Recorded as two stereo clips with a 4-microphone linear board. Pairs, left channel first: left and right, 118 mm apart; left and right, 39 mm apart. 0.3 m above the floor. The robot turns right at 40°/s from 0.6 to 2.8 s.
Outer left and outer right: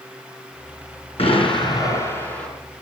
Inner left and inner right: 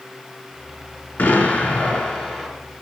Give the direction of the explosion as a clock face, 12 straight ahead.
8 o'clock.